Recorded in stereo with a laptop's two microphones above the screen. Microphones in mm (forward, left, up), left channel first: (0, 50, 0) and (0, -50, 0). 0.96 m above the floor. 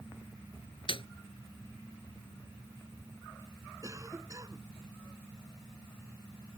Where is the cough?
35° right (ahead or behind).